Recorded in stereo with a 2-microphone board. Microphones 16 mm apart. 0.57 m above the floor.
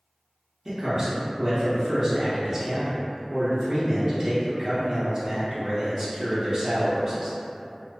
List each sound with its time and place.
0.7 s a man speaking: 20° right (ahead or behind), 0.6 m